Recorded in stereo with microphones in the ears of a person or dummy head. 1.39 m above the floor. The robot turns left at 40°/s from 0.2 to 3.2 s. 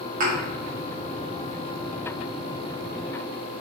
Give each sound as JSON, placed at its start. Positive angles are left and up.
{"t": 0.2, "sound": "a thud", "side_deg": -45, "distance_m": 1.2}